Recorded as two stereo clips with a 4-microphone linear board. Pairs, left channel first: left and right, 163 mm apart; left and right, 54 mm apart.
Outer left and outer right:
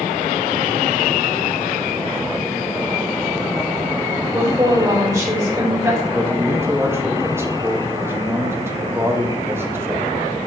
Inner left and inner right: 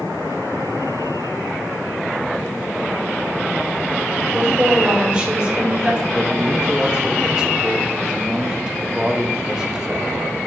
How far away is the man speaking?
About 1.1 m.